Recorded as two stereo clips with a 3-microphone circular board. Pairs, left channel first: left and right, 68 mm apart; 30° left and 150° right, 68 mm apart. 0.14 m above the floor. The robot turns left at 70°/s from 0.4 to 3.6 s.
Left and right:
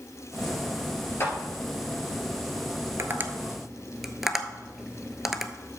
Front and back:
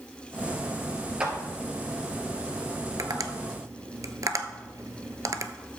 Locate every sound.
1.2 s a clap: 135° left, 2.5 m; by 1.3 s 125° left, 2.5 m
3.0 s tapping: 130° right, 0.7 m; by 5.5 s 175° right, 0.7 m